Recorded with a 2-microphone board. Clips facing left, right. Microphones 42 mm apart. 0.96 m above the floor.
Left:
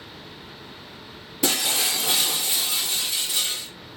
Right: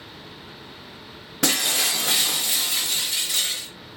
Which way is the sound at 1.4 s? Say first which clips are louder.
Right 1 dB; 55° right (ahead or behind).